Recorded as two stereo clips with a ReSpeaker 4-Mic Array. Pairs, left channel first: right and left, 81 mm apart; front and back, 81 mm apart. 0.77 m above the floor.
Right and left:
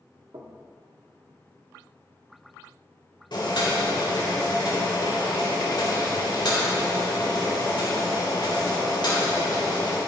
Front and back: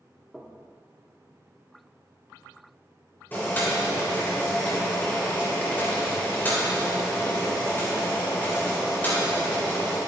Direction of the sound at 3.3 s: 65° right.